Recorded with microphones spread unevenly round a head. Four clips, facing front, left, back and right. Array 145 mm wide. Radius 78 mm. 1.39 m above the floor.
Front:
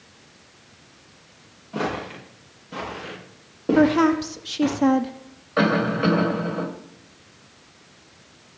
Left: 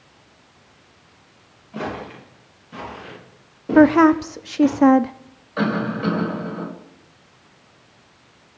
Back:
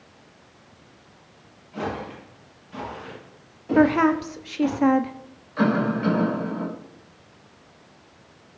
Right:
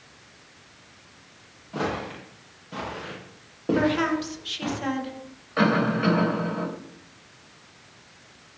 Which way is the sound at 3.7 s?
85° left.